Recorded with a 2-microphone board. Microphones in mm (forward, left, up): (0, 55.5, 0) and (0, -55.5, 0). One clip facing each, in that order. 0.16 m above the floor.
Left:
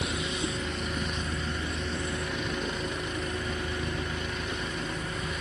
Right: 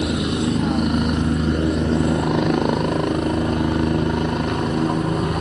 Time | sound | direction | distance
0.0 | a helicopter | 75° right (ahead or behind) | ?